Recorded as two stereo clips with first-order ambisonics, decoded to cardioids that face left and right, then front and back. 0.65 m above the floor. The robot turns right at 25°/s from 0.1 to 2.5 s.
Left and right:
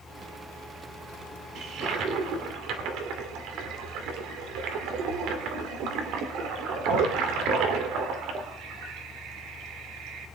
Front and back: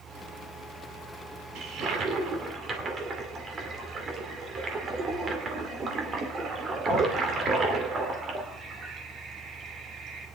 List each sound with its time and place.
1.6 s a toilet flushing: 140° right, 2 m; by 10.3 s 115° right, 2 m